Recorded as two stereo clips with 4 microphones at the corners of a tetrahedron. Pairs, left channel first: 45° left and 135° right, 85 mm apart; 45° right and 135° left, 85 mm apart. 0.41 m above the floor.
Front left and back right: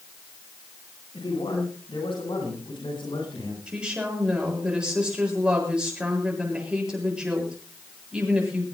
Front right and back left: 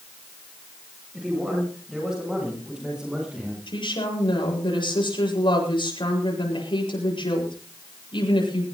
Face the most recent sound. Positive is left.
turn(degrees=-55)